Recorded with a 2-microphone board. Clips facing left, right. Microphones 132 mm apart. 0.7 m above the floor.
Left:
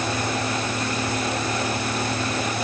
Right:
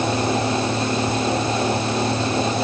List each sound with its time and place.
Only background noise.